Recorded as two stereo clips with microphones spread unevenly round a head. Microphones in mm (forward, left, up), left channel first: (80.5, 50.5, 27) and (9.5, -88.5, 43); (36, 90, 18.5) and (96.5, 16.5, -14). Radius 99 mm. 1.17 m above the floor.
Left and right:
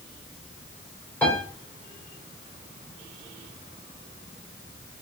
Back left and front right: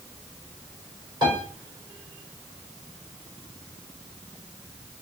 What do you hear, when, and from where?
1.2 s a piano: 15° right, 3.5 m